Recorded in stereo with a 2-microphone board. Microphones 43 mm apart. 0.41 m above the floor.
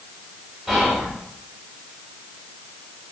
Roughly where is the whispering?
Centre.